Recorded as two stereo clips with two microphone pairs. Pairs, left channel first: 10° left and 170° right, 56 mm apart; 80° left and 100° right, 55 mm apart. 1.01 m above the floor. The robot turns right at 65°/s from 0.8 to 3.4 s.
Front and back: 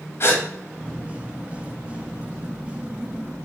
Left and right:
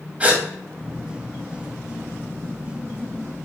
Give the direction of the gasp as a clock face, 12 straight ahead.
1 o'clock.